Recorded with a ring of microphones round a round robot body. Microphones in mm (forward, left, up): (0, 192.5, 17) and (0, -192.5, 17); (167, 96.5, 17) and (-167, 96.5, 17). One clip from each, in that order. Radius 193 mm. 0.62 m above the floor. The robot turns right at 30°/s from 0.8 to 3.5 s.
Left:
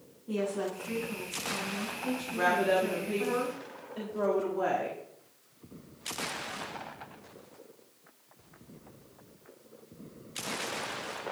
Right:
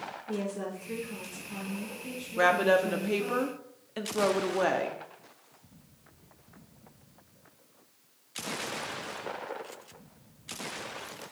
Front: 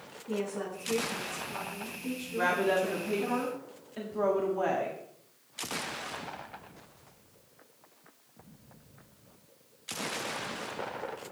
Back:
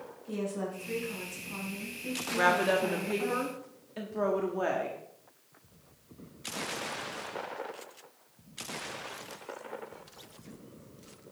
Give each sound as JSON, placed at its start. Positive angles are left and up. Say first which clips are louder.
{"t": 0.3, "sound": "a woman speaking", "louder": "left 4 dB, front 1 dB", "azimuth_deg": 80, "distance_m": 4.5}
{"t": 2.4, "sound": "a woman speaking", "louder": "right 3 dB, back 2 dB", "azimuth_deg": -140, "distance_m": 1.3}